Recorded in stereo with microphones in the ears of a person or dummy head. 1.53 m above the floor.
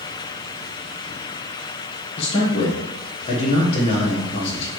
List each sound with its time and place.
2.2 s a man speaking: 30° left (ahead or behind), 1.3 m